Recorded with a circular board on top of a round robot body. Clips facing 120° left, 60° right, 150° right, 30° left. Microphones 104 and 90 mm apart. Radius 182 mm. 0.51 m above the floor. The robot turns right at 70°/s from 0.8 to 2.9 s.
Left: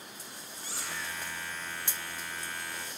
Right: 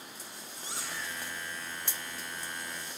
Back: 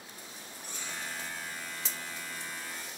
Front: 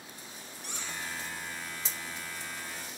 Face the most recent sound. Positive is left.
turn(degrees=155)